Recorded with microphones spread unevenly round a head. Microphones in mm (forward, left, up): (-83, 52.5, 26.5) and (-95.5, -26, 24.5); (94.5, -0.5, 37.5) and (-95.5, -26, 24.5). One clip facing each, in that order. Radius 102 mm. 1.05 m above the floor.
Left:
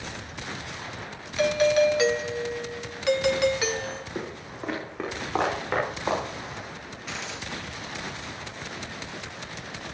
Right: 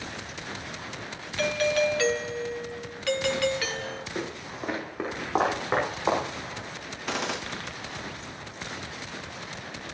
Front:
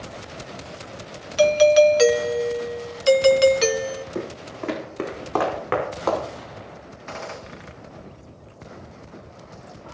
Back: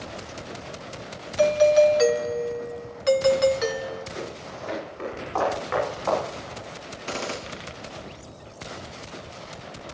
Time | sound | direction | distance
1.4 | a doorbell | 20° left | 0.6 m
4.2 | footsteps | 5° right | 3.5 m
7.1 | a gunshot | 125° right | 1.0 m